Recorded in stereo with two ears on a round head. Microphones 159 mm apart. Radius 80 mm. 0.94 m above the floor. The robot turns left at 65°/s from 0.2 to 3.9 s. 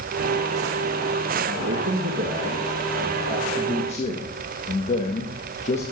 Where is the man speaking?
65° right, 1.6 m; by 5.8 s 135° left, 1.6 m.